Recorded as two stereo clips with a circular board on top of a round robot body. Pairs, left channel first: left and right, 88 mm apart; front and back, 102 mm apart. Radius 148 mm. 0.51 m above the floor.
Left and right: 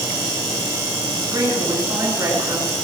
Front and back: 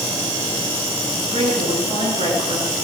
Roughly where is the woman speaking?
Behind right.